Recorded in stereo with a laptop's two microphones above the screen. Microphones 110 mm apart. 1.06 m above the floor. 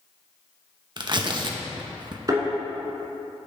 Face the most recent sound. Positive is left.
turn(degrees=-35)  # may be behind; listen again after turning